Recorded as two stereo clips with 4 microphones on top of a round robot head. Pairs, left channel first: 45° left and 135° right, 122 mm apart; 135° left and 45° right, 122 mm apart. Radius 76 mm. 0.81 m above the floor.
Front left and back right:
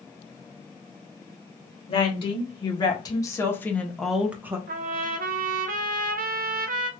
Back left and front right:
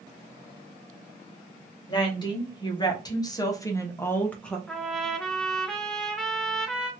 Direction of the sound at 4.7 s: 140° right.